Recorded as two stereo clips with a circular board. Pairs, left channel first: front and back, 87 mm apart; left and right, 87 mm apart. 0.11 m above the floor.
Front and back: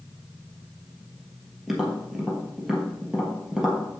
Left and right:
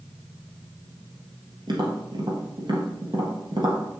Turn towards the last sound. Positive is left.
turn(degrees=-95)